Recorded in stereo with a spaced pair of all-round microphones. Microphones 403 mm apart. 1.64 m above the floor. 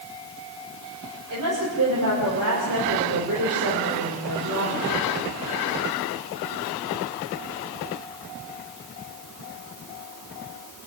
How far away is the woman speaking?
About 6 m.